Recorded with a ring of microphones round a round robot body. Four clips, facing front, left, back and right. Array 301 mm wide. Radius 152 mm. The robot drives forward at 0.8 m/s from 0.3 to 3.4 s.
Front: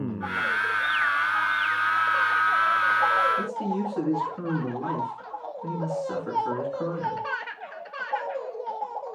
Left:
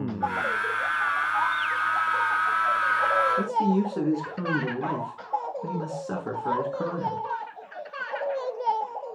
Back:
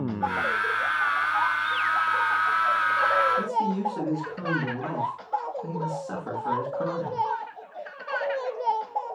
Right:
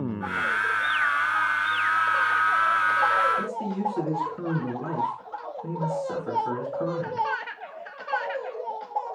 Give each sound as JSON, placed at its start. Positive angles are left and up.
{"t": 3.4, "sound": "a man speaking", "azimuth_deg": 85, "distance_m": 6.5}